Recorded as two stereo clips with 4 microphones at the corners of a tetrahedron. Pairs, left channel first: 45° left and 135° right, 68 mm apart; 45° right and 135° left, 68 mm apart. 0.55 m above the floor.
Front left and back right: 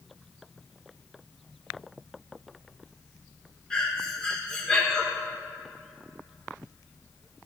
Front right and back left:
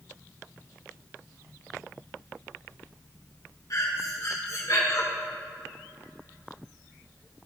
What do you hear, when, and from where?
3.7 s breathing: 30° right, 1.5 m